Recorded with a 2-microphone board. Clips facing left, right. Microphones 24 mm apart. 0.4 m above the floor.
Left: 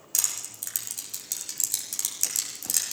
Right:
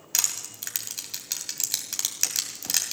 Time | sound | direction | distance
0.1 | crushing | 40° right (ahead or behind) | 2.5 m